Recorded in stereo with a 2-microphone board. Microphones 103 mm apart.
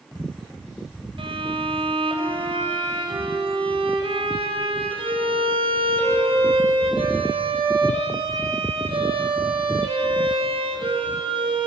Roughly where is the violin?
Right.